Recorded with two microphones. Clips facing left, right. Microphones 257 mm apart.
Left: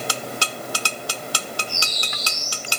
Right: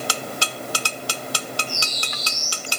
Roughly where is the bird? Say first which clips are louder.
Right 1 dB; centre.